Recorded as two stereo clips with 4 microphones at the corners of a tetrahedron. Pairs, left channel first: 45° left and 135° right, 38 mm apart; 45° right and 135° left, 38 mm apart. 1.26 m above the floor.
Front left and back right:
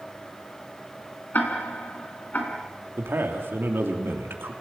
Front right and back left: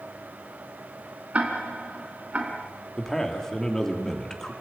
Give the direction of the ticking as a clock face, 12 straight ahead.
9 o'clock.